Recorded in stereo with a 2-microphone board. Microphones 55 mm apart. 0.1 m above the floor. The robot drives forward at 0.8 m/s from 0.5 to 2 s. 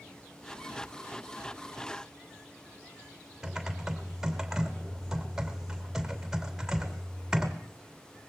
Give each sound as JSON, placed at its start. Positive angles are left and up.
{"t": 3.4, "sound": "typing on a keyboard", "side_deg": -10, "distance_m": 3.0}